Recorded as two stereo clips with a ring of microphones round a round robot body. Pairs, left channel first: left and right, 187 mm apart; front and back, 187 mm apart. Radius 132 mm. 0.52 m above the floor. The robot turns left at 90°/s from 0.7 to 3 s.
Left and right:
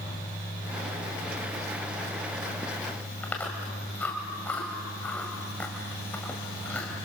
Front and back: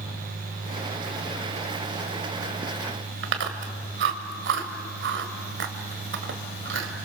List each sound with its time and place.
3.2 s chewing: 175° left, 1.7 m